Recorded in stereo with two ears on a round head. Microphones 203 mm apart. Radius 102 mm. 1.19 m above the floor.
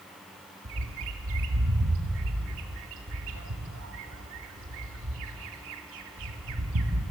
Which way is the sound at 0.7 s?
65° right (ahead or behind).